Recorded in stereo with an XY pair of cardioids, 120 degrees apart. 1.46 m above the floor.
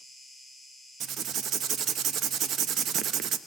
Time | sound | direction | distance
0.0 | an insect | 15° right | 2 m
1.0 | writing | 60° right | 0.6 m